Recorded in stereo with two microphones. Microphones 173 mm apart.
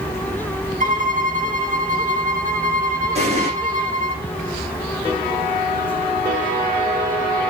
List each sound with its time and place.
0.8 s a violin: 50° right (ahead or behind), 1.9 m
3.1 s an explosion: 40° right (ahead or behind), 8 m